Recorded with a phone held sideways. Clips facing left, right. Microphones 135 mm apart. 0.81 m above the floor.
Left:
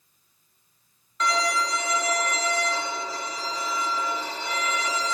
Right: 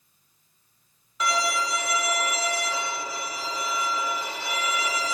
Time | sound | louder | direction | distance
1.2 | a violin | left 1 dB | 10° right (ahead or behind) | 3.5 m